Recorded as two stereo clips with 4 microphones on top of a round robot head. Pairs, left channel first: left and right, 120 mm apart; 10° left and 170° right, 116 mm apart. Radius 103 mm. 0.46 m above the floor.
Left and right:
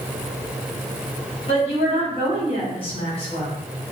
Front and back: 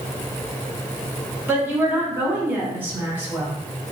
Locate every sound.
1.5 s a woman speaking: 120° left, 1.8 m